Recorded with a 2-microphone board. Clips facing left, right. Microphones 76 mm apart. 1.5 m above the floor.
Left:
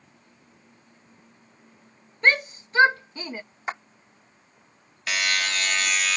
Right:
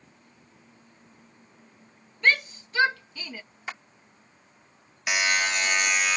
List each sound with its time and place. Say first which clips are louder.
2.2 s a shout: left 2 dB; 35° left (ahead or behind)
3.7 s a clap: left 6 dB; 35° left (ahead or behind)
5.1 s a buzzer: right 1 dB; 15° right (ahead or behind)